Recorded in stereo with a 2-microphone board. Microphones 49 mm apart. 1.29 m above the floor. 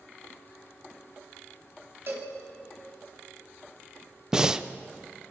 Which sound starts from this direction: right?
A cowbell, at 2.1 s.